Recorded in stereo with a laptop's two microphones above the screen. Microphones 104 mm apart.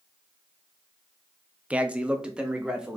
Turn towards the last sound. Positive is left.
turn(degrees=-5)  # may be behind; listen again after turning